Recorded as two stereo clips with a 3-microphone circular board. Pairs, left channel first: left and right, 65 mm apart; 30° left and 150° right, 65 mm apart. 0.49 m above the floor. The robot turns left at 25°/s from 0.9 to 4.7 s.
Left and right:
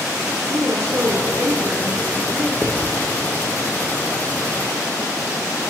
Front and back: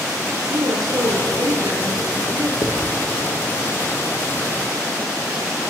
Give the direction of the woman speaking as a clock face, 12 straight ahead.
5 o'clock.